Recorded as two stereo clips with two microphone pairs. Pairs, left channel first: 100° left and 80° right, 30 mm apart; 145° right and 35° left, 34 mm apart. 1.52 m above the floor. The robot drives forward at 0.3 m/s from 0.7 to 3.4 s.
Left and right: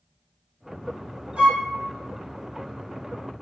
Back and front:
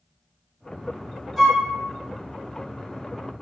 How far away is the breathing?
No breathing in this recording.